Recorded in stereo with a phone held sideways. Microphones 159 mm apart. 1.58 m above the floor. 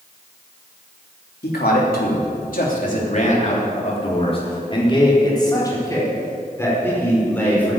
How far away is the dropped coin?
No dropped coin in this recording.